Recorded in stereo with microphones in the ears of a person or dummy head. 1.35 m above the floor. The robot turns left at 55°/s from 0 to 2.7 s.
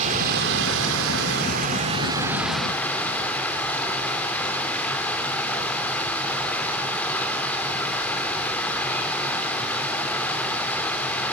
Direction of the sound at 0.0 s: 40° right.